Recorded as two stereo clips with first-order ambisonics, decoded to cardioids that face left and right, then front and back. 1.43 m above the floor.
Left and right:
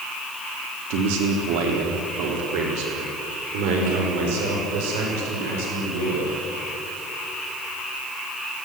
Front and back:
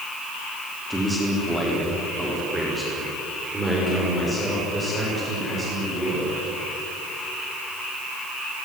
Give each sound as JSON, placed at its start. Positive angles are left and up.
{"t": 0.9, "sound": "a man speaking", "azimuth_deg": -95, "distance_m": 3.5}